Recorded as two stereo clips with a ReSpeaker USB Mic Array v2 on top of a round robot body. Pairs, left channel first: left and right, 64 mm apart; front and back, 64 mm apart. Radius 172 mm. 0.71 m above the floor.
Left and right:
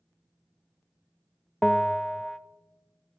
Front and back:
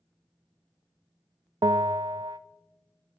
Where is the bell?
175° left, 0.6 m.